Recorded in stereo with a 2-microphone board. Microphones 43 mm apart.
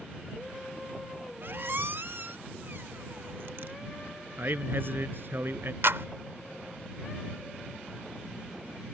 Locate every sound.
1.4 s a squeak: 55° right (ahead or behind)
4.4 s a man speaking: 55° right (ahead or behind)
5.8 s a clap: 65° right (ahead or behind)